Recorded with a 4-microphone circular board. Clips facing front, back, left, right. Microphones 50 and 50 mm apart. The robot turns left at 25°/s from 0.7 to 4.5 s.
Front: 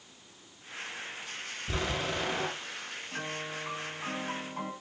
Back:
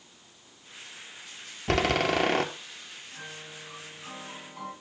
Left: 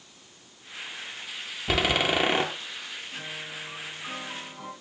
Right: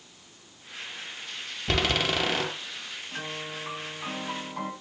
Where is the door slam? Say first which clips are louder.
Back 9 dB, left 2 dB; 175° left, 1.9 m; by 2.5 s 155° left, 1.9 m.